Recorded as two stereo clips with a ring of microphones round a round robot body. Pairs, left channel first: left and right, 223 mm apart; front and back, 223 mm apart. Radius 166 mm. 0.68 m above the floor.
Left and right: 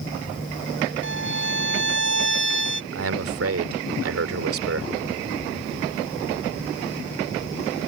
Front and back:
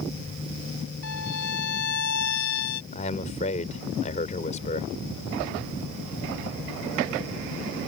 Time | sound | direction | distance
1.0 | a violin | 55° right | ?
2.9 | a man speaking | 70° right | ?